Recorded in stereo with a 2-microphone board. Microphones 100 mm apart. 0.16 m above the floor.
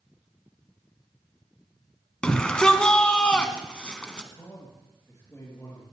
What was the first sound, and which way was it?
A shout, 10° left (ahead or behind).